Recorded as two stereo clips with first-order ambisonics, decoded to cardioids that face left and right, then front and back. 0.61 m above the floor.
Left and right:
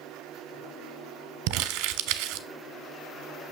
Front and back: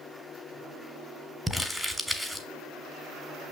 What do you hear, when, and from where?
1.5 s crumpling: 85° right, 1.4 m